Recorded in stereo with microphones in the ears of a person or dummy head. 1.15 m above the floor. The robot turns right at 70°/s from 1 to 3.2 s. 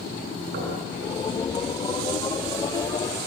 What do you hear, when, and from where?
0.5 s knocking: 60° right (ahead or behind), 9 m